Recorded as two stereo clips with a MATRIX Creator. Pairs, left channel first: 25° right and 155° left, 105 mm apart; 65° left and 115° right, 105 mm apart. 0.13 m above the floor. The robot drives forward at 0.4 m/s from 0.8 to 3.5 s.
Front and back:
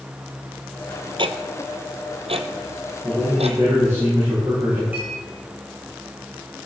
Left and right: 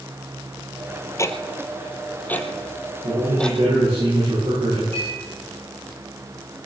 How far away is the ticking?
About 1.2 m.